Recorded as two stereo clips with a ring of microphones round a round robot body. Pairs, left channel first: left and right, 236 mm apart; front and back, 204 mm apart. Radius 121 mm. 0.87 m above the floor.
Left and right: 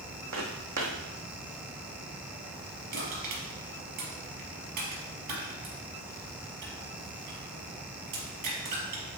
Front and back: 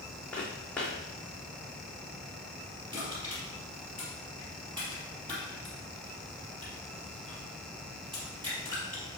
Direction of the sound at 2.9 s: 105° right.